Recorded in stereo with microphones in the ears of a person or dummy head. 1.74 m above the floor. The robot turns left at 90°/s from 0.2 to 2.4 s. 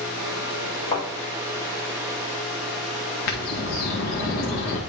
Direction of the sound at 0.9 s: 35° left (ahead or behind).